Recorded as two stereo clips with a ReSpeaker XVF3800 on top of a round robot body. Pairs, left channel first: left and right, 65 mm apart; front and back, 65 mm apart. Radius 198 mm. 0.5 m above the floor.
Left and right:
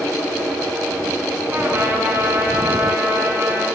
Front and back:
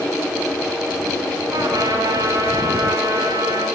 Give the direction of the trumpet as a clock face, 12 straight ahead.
5 o'clock.